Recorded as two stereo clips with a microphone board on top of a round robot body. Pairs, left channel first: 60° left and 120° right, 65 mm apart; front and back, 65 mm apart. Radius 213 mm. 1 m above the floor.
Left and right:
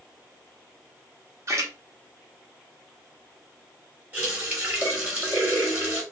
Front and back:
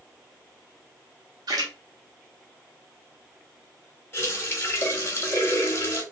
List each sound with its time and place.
1.5 s a splash: 165° right, 0.8 m
4.1 s a running tap: 55° right, 1.8 m